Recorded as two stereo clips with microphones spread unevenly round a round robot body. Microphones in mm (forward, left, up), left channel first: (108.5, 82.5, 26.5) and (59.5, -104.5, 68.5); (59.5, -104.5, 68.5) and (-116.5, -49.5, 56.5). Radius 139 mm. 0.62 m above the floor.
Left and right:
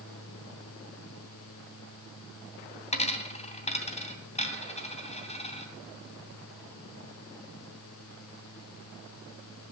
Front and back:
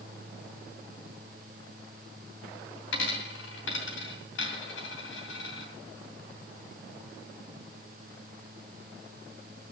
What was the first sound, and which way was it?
A dropped coin, 20° left.